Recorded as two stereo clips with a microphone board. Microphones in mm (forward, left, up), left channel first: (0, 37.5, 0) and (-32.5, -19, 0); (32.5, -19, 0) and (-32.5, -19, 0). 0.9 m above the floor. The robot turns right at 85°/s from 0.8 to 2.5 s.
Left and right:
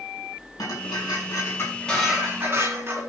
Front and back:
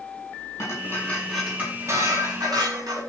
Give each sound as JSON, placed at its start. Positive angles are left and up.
{"t": 0.6, "sound": "dishes clattering", "azimuth_deg": 45, "distance_m": 6.5}